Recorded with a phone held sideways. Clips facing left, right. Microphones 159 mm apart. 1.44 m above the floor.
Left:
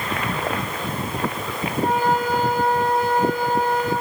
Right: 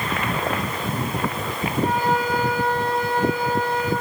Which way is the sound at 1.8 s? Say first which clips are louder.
Left 2 dB; 50° left (ahead or behind).